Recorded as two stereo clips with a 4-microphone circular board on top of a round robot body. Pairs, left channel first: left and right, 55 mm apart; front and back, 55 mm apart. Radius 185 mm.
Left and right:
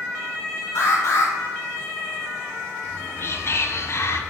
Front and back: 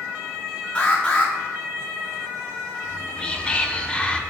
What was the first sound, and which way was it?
An alarm, 65° left.